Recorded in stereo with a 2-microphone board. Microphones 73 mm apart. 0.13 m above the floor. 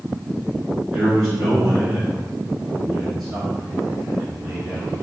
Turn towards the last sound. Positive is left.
turn(degrees=-5)  # may be behind; listen again after turning